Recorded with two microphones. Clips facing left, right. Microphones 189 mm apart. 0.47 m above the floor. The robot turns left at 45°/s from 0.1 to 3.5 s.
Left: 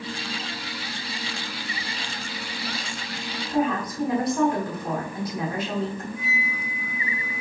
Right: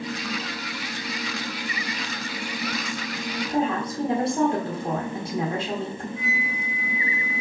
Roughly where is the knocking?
No knocking in this recording.